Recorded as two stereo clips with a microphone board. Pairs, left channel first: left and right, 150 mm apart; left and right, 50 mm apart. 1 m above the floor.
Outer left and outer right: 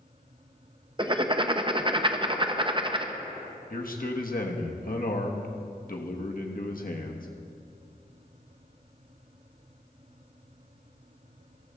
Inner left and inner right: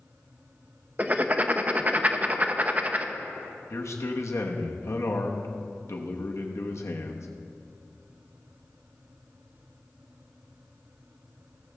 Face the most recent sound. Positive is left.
turn(degrees=65)  # may be behind; listen again after turning